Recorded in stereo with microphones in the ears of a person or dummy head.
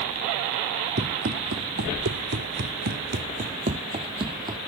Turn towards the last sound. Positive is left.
turn(degrees=-30)  # may be behind; listen again after turning